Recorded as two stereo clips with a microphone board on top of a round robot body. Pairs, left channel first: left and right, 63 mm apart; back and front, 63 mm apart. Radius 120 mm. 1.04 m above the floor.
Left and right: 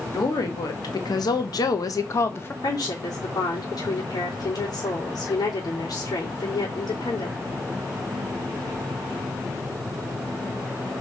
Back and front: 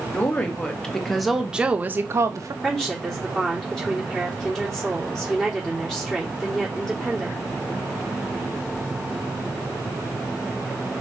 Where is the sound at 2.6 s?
95° left, 3.5 m.